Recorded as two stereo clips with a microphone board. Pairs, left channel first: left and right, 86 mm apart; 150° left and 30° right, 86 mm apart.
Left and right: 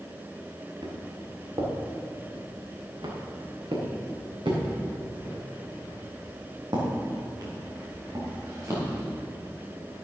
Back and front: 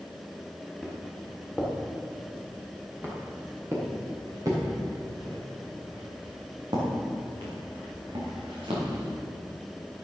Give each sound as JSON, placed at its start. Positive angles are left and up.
{"t": 0.8, "sound": "footsteps", "azimuth_deg": -115, "distance_m": 5.5}